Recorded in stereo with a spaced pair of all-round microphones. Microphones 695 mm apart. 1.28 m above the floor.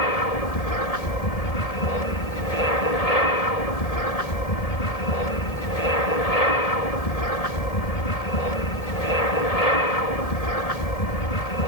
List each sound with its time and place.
0.0 s an aircraft: 60° left (ahead or behind)